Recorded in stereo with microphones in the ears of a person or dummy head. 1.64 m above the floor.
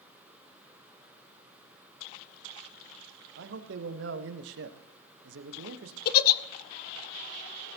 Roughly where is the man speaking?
Right.